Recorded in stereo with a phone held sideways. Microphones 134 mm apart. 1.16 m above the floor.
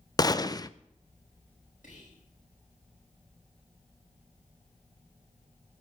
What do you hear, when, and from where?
0.2 s a gunshot: 30° left (ahead or behind), 0.5 m
1.8 s whispering: 80° left, 7 m